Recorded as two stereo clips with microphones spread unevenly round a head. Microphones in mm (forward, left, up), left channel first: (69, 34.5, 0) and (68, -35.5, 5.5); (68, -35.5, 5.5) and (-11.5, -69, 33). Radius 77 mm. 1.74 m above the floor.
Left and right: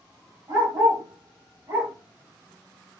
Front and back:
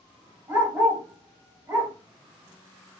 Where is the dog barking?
120° right, 1.8 m.